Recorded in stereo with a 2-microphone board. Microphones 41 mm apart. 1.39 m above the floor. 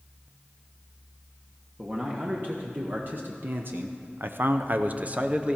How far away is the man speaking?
About 1.5 m.